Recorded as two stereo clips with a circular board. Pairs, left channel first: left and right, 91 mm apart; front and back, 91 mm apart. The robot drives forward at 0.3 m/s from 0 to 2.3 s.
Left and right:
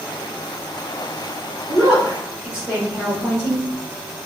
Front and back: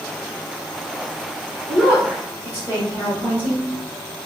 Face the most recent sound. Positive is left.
turn(degrees=-145)